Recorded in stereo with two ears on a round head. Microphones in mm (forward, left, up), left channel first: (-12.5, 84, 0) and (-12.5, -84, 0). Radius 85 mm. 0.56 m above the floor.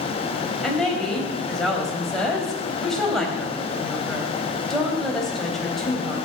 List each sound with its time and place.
0.6 s a woman speaking: centre (ahead or behind), 3.5 m